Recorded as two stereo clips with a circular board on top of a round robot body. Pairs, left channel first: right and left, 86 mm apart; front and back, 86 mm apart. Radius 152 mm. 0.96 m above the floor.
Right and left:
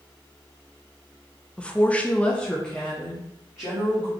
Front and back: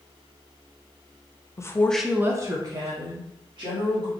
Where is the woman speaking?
20° right, 0.7 m; by 4.1 s 175° right, 2 m.